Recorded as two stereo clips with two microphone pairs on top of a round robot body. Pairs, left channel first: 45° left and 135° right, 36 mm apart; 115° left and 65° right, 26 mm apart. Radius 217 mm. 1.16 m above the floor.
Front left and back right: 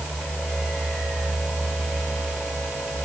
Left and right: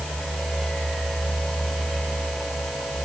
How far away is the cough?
I don't hear a cough.